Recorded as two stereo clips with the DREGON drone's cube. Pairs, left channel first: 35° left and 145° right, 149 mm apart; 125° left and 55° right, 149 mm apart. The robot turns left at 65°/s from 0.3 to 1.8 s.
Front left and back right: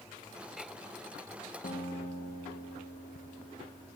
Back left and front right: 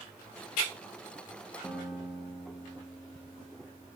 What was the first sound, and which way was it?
A guitar, 45° left.